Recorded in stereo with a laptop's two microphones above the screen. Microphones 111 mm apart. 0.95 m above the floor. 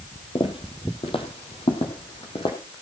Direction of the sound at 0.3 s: 50° left (ahead or behind).